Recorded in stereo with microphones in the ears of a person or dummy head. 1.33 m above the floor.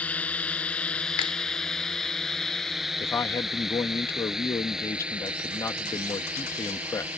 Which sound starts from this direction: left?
A finger snap, at 1.2 s.